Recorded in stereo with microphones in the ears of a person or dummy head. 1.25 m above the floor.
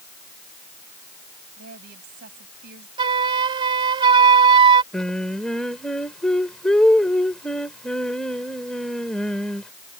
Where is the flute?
30° right (ahead or behind).